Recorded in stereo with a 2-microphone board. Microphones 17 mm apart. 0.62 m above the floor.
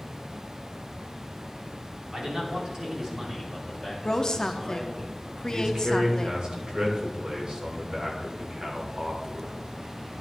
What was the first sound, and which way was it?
A man speaking, 60° right (ahead or behind).